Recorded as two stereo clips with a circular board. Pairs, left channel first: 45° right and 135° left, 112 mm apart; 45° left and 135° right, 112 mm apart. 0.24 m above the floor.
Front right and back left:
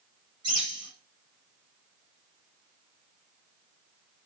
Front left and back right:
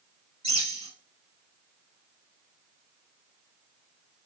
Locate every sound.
0.4 s a bird: 175° right, 3 m